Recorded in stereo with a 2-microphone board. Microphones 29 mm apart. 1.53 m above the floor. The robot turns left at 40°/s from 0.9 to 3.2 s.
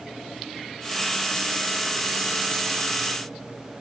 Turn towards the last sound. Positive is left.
No sound to turn to.